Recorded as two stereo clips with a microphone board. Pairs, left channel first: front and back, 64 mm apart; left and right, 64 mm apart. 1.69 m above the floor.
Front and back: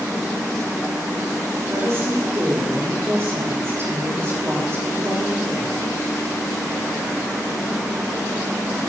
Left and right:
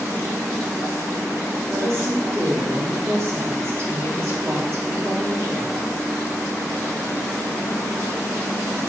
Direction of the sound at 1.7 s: 135° right.